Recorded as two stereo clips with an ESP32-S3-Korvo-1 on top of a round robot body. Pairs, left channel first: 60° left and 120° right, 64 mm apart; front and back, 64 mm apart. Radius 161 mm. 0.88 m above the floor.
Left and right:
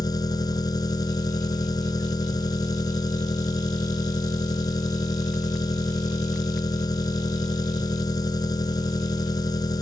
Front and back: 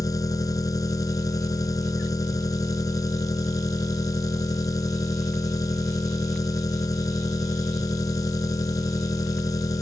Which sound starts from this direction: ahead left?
An engine running, at 0.0 s.